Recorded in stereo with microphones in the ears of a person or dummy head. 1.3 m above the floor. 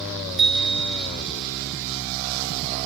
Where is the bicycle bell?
Centre (ahead or behind), 3.5 m.